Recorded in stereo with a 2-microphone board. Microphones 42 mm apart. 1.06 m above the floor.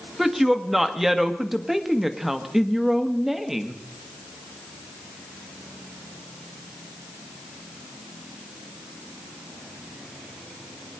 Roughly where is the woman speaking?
Centre.